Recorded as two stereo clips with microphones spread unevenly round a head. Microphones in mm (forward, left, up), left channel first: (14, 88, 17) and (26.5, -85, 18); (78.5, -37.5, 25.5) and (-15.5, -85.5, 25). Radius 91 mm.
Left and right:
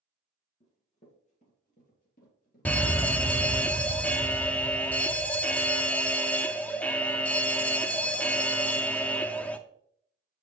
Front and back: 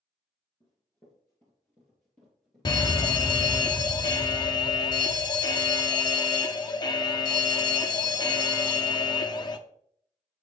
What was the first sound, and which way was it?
Running footsteps, 75° left.